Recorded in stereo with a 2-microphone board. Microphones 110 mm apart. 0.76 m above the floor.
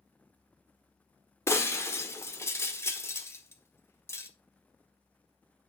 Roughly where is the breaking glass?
Left.